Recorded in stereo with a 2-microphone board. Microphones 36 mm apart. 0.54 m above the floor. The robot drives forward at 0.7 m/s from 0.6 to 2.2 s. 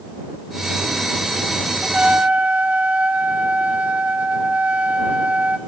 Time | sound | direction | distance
1.8 | a trumpet | 30° right (ahead or behind) | 1.6 m